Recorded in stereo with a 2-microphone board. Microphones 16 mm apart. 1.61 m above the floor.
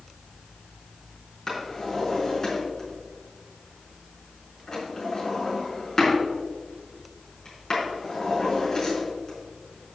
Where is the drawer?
25° left (ahead or behind), 4.5 m.